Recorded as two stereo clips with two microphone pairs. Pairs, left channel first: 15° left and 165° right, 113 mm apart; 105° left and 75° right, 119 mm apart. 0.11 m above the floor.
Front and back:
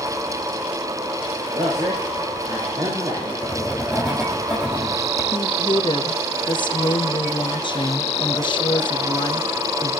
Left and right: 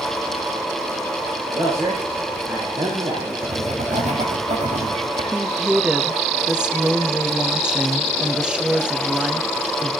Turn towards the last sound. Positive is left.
turn(degrees=5)